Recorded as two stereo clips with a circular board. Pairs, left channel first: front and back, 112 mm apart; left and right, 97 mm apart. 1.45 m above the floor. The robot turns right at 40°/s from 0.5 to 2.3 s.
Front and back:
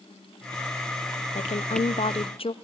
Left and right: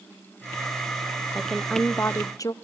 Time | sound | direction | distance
1.4 | a woman speaking | 5° right | 0.6 m